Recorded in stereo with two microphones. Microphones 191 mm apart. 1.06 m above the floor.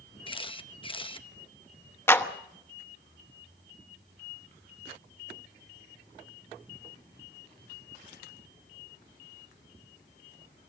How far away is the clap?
About 1.1 m.